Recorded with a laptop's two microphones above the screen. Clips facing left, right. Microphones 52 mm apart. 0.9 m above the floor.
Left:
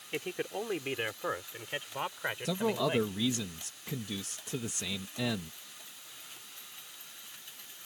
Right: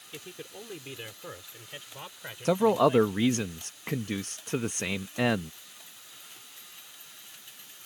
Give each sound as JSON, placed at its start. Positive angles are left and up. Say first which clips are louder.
{"t": 0.1, "sound": "a man speaking", "louder": "left 8 dB", "side_deg": 65}
{"t": 2.5, "sound": "a man speaking", "louder": "right 10 dB", "side_deg": -60}